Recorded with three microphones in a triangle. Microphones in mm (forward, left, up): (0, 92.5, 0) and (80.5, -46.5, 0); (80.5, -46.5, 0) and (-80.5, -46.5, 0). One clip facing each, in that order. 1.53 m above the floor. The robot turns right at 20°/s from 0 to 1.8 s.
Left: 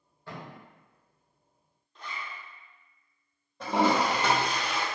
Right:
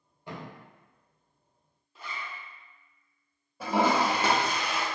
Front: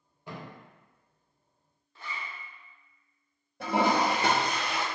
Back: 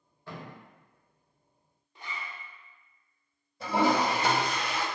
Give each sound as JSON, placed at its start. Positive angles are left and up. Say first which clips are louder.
{"t": 0.3, "sound": "a thud", "louder": "right 2 dB, front 1 dB", "azimuth_deg": -30, "distance_m": 0.8}
{"t": 1.9, "sound": "a zipper", "louder": "even, even", "azimuth_deg": -135, "distance_m": 0.5}
{"t": 3.6, "sound": "a toilet flushing", "louder": "even, even", "azimuth_deg": 25, "distance_m": 0.7}